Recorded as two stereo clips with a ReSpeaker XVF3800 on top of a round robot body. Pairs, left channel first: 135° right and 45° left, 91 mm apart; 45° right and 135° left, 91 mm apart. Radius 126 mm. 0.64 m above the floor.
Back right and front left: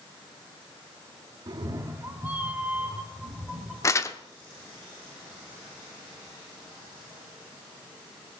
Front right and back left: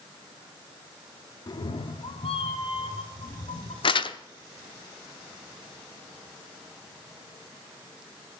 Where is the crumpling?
75° right, 0.8 m.